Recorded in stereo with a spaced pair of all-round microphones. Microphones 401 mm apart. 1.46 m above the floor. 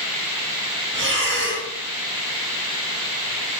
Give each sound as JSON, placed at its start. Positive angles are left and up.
{"t": 0.9, "sound": "breathing", "side_deg": -30, "distance_m": 0.7}